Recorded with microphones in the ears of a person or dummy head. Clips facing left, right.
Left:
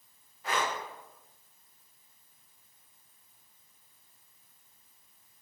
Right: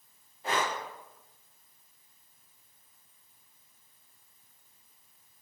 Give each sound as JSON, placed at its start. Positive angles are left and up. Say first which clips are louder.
{"t": 0.4, "sound": "breathing", "louder": "right 1 dB", "side_deg": -25, "distance_m": 0.6}